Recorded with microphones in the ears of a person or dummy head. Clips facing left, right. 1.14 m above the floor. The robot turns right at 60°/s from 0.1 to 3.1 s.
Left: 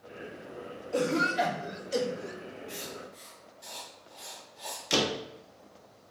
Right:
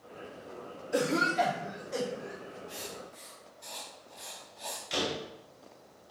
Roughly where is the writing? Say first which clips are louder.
Left 2 dB; left.